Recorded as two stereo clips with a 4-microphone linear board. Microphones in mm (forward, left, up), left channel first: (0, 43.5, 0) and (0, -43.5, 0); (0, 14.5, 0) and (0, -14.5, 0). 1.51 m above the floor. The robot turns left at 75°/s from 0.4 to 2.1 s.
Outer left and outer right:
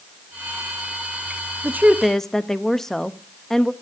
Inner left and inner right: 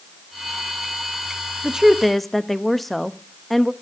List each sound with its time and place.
1.6 s a woman speaking: 150° right, 0.7 m; by 3.7 s 175° left, 0.7 m